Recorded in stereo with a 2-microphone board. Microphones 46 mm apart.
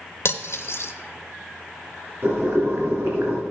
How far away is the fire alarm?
I don't hear a fire alarm.